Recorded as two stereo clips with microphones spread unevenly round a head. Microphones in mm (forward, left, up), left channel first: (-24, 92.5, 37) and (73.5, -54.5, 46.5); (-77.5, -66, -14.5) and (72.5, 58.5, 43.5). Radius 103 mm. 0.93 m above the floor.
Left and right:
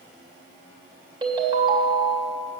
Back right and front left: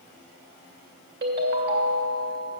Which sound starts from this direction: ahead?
A ringtone, at 1.2 s.